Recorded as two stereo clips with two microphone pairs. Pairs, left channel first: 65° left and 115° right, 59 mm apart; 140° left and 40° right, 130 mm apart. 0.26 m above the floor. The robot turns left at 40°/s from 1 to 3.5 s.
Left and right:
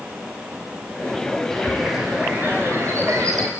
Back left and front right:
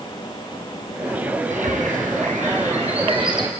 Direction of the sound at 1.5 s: 20° right.